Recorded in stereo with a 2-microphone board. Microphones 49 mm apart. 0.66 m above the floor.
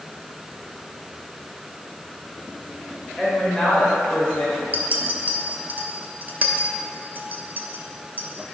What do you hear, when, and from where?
3.2 s a woman speaking: centre (ahead or behind), 2.5 m; by 4.6 s 35° left (ahead or behind), 2.5 m
4.7 s a clink: 35° right (ahead or behind), 0.7 m